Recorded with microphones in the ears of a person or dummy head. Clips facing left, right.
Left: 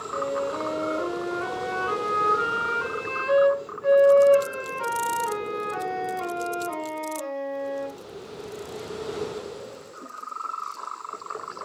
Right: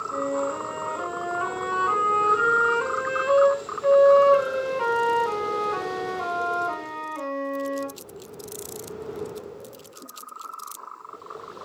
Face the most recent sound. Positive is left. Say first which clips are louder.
# right 1 dB
turn(degrees=-45)  # may be behind; listen again after turning